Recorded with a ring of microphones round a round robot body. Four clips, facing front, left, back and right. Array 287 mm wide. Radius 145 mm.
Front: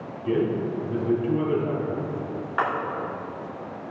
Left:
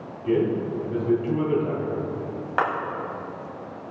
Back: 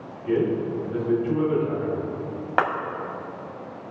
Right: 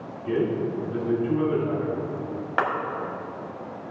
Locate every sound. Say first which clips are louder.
0.2 s a man speaking: left 2 dB, back 1 dB; 40° left, 3.5 m
2.6 s a clap: left 1 dB, back 3 dB; 175° right, 1.8 m